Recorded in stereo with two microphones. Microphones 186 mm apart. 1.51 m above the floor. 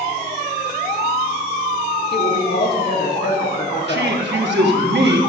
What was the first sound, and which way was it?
A woman speaking, 65° left (ahead or behind).